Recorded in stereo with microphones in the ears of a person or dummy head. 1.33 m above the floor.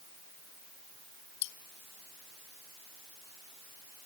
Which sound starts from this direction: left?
Cutlery clinking, at 1.4 s.